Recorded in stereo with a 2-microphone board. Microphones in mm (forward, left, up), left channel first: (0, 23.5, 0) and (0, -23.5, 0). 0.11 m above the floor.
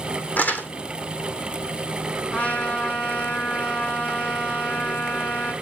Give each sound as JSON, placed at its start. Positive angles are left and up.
{"t": 0.4, "sound": "crumpling", "side_deg": 40, "distance_m": 1.6}
{"t": 2.3, "sound": "a trumpet", "side_deg": 35, "distance_m": 2.5}